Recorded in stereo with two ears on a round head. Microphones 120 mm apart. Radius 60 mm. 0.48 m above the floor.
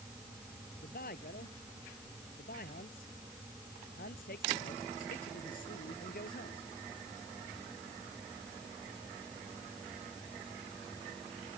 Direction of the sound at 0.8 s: 70° left (ahead or behind).